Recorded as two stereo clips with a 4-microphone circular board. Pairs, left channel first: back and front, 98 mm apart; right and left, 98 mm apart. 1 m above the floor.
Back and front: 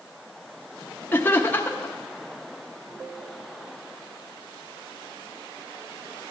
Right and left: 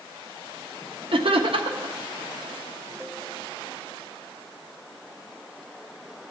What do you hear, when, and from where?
1.1 s laughter: 110° left, 0.9 m